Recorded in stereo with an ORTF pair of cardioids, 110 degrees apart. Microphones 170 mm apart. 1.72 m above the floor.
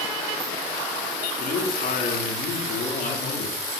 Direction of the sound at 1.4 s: 55° left.